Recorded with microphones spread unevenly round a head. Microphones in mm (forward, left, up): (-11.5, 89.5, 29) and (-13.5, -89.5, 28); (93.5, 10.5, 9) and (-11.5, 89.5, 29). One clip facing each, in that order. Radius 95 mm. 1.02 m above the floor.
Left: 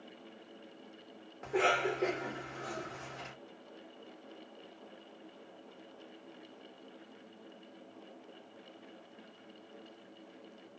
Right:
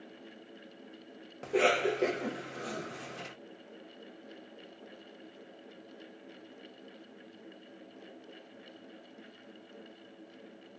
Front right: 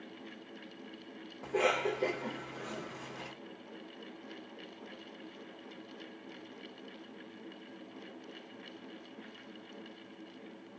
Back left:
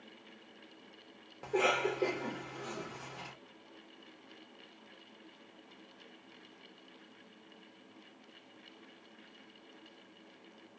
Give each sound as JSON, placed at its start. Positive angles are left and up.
{"t": 1.4, "sound": "a cough", "azimuth_deg": -140, "distance_m": 0.9}